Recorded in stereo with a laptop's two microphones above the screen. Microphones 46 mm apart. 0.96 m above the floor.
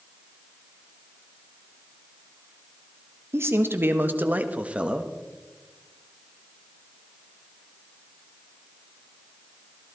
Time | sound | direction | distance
3.3 | a man speaking | 55° right (ahead or behind) | 1.3 m